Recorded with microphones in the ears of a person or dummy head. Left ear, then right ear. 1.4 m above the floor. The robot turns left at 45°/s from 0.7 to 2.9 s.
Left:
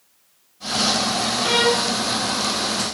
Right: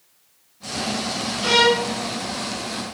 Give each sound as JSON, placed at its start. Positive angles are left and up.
{"t": 1.4, "sound": "a violin", "side_deg": -5, "distance_m": 0.8}